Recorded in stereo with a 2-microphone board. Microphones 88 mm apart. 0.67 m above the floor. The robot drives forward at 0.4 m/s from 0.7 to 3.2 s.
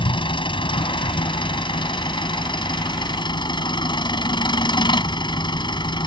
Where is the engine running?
75° left (ahead or behind); by 6.1 s 60° left (ahead or behind).